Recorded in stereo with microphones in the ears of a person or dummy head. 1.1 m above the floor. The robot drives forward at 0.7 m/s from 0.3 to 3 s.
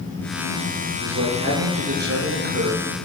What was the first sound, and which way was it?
A man speaking, 60° right (ahead or behind).